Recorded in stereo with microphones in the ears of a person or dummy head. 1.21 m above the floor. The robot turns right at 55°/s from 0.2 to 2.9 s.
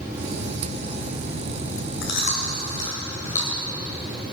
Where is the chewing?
60° left (ahead or behind), 2.5 m; by 3.6 s 15° left (ahead or behind), 2.5 m.